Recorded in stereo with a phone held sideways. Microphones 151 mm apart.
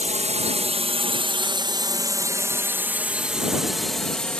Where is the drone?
50° right (ahead or behind); by 4.4 s 5° left (ahead or behind).